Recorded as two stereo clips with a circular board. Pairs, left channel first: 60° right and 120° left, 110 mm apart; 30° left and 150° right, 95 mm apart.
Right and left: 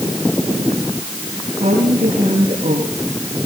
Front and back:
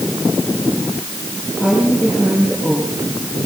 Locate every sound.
1.6 s a woman speaking: 125° left, 9 m